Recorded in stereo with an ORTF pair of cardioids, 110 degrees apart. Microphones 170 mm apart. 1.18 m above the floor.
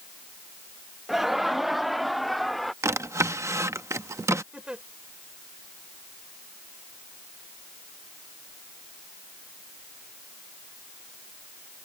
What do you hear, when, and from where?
1.1 s laughter: straight ahead
2.8 s a drawer: 15° right
4.5 s a giggle: 5° right